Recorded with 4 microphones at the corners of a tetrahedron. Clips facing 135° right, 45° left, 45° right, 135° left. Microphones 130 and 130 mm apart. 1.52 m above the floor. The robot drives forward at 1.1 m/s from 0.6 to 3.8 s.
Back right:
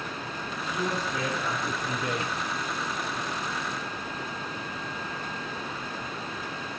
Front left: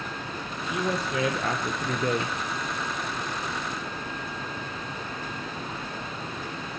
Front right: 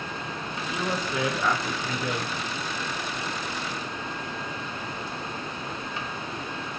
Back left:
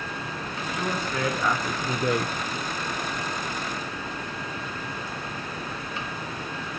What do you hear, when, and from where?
0.7 s a woman speaking: 25° left, 1.8 m; by 2.3 s 110° left, 0.8 m